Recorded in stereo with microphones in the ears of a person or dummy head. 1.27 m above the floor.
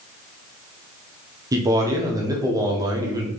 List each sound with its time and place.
1.5 s a man speaking: 20° right (ahead or behind), 0.9 m